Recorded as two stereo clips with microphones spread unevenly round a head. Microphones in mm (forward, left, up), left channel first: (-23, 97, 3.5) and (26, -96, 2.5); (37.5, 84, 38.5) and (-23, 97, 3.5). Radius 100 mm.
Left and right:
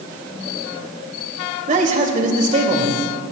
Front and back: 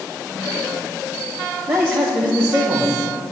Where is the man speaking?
130° right, 2 m.